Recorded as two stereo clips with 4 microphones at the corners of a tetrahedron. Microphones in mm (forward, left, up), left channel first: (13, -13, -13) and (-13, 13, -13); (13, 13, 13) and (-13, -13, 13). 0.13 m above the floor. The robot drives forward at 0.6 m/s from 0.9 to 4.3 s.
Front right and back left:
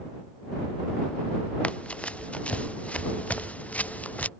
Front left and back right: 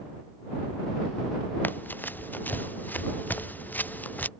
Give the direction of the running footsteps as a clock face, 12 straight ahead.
12 o'clock.